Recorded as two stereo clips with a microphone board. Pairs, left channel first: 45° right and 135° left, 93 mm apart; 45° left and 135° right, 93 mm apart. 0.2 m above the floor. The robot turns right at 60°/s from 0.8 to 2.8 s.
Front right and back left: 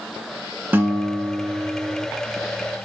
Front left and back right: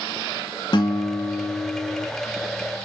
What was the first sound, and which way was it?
A guitar, 70° left.